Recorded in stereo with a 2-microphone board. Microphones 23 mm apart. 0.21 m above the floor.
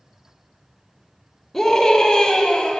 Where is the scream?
10° left (ahead or behind), 1.9 m; by 2.8 s 50° left (ahead or behind), 1.7 m.